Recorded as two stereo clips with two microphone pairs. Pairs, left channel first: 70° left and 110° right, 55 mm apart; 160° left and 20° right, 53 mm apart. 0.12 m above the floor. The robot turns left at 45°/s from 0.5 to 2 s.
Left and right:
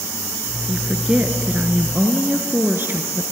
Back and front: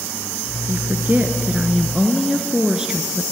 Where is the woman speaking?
35° right, 1.9 m; by 3.2 s 90° right, 1.9 m.